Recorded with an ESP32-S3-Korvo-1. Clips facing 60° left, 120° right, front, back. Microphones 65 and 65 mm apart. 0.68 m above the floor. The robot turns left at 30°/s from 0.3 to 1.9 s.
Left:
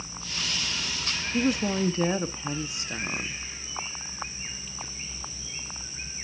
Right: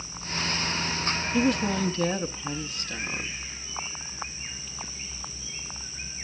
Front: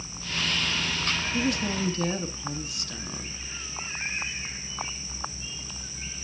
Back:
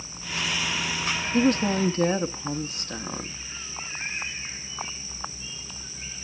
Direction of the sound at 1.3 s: 150° left.